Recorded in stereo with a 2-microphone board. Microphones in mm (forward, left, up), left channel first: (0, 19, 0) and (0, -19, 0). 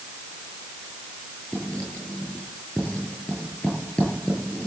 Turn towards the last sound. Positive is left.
turn(degrees=30)  # may be behind; listen again after turning